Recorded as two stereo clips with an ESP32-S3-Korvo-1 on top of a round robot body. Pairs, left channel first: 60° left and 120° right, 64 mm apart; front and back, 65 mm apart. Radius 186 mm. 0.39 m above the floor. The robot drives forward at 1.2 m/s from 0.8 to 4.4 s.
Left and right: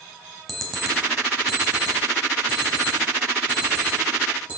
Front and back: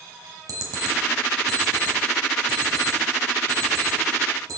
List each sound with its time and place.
0.5 s an alarm clock: 150° left, 1.5 m; by 4.6 s 170° left, 5.5 m